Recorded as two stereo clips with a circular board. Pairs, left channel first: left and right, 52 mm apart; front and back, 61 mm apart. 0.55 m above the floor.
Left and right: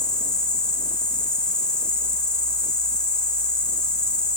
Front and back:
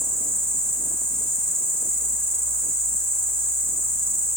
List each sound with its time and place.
0.0 s an insect: 155° left, 2.0 m